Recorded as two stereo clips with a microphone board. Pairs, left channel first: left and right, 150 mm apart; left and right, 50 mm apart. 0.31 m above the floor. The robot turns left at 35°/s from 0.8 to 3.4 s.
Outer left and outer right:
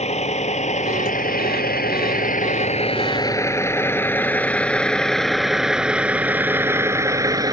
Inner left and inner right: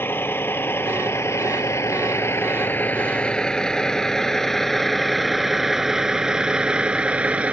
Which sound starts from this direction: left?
A vehicle, at 0.0 s.